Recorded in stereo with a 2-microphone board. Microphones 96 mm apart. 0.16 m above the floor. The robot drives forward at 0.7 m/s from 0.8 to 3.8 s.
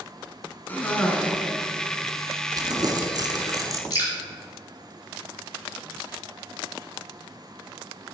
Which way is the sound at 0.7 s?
20° left (ahead or behind).